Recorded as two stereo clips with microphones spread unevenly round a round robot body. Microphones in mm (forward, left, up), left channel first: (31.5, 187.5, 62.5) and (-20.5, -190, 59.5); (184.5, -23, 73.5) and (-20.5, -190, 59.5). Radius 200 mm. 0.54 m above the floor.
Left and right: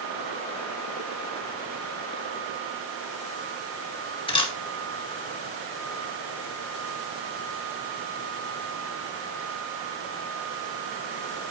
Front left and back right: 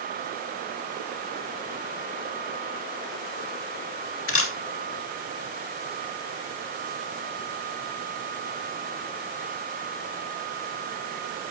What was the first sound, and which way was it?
A camera shutter, 5° left.